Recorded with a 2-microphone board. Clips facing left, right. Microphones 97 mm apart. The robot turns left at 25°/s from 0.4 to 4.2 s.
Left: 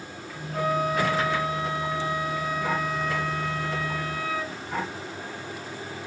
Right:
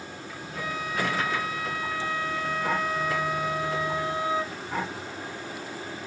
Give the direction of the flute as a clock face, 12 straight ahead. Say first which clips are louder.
Left 7 dB; 10 o'clock.